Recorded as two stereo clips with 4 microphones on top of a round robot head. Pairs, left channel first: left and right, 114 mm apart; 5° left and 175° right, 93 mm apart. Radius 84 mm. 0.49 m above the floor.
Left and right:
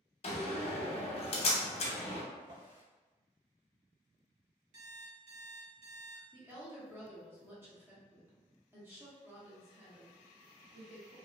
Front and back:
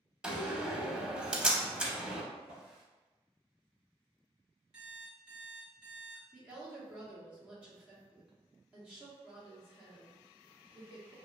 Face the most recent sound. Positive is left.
turn(degrees=-120)